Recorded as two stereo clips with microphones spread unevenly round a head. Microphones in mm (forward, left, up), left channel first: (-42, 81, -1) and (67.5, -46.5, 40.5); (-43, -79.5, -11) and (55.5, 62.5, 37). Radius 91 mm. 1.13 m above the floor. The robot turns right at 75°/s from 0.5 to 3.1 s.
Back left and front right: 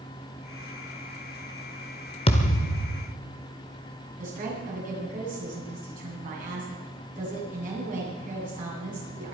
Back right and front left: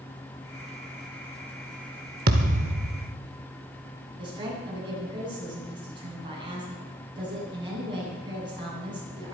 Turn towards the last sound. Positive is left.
turn(degrees=-10)